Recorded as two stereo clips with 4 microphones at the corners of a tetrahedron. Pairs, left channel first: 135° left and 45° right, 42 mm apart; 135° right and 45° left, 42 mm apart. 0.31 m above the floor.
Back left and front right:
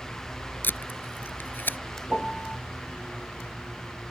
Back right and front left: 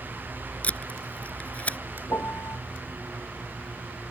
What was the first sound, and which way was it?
Tape being pulled, 170° left.